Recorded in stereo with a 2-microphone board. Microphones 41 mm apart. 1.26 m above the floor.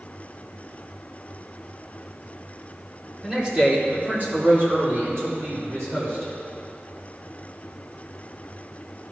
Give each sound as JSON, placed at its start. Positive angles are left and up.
{"t": 3.2, "sound": "a man speaking", "side_deg": -10, "distance_m": 2.5}